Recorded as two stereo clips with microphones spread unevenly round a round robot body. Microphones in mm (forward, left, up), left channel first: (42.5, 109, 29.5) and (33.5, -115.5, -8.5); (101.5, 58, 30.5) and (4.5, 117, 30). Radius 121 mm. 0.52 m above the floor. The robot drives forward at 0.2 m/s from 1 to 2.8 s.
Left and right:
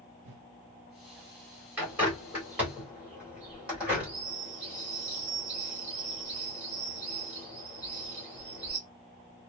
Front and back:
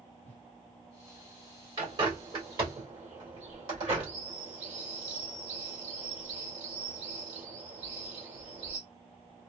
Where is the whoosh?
95° right, 0.7 m.